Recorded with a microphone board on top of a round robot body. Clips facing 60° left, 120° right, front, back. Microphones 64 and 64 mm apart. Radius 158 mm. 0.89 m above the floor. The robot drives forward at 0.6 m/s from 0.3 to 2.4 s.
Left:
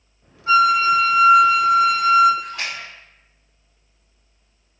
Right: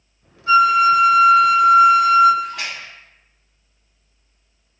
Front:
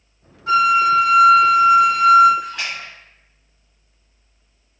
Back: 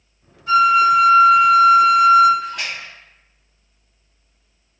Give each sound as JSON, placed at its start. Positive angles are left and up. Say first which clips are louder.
{"t": 0.5, "sound": "a flute", "louder": "right 2 dB, back 2 dB", "azimuth_deg": -5, "distance_m": 1.5}
{"t": 2.4, "sound": "a splash", "louder": "right 2 dB, back 1 dB", "azimuth_deg": -150, "distance_m": 1.2}